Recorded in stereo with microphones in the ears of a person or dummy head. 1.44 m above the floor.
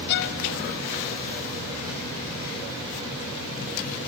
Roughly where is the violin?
Left.